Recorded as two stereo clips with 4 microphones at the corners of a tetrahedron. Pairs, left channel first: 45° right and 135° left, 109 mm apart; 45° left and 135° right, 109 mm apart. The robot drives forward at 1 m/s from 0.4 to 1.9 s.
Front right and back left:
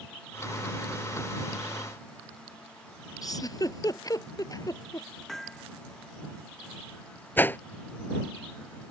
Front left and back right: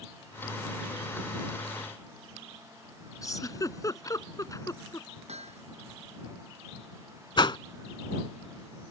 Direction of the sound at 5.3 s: 130° right.